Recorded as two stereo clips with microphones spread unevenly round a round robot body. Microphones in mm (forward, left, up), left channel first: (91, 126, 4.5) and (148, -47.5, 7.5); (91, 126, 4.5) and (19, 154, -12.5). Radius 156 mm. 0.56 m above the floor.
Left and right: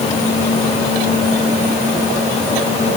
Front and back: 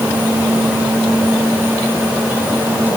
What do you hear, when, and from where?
Only background noise.